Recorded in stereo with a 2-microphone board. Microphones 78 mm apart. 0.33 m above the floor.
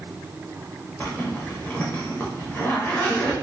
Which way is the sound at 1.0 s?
25° left (ahead or behind).